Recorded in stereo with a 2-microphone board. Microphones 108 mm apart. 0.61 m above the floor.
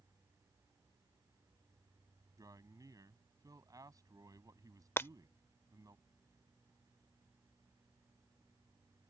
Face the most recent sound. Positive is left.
turn(degrees=20)  # may be behind; listen again after turning